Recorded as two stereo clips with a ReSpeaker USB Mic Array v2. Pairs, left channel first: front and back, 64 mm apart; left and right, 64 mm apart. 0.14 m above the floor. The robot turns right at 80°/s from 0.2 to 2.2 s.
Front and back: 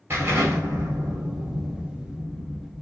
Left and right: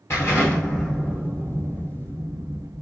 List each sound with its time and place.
0.1 s an explosion: 130° left, 2 m; by 2.8 s 70° right, 2 m